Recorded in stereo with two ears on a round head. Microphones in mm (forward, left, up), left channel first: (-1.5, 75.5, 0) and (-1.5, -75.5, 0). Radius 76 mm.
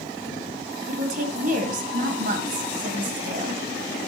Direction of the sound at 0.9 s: 50° right (ahead or behind).